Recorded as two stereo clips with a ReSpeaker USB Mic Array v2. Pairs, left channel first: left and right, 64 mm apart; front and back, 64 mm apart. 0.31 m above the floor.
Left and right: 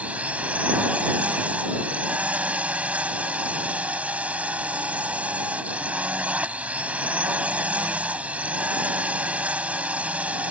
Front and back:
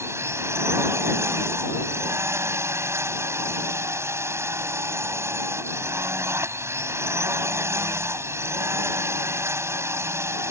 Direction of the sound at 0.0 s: 150° right.